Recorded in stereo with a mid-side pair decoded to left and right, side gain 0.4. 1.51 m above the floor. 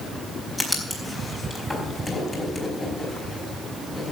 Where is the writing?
20° left, 4.5 m.